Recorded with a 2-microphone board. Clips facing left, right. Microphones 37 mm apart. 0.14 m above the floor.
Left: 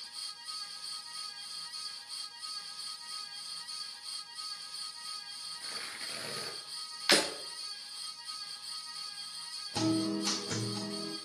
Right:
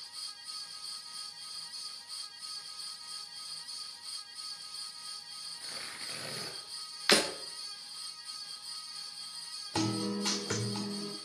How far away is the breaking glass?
About 4 m.